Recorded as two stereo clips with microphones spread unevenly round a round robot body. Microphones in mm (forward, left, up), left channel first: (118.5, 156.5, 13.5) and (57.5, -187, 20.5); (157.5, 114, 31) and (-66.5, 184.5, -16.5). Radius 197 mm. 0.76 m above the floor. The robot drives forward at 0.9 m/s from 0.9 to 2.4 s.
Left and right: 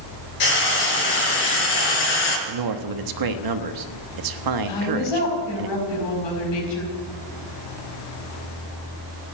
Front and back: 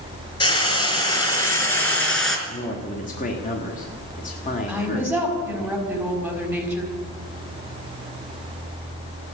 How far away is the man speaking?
About 1.2 m.